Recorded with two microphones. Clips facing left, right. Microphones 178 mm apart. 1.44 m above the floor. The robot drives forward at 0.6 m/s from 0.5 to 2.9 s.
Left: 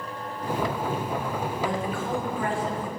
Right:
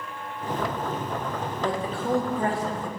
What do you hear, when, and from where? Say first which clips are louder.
1.6 s a woman speaking: right 4 dB; 35° right (ahead or behind), 3.5 m; by 2.9 s 40° right (ahead or behind), 3 m